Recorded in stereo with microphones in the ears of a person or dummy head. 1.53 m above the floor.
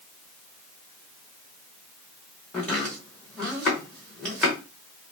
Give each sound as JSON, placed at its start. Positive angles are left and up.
{"t": 2.5, "sound": "chopping", "side_deg": 5, "distance_m": 0.7}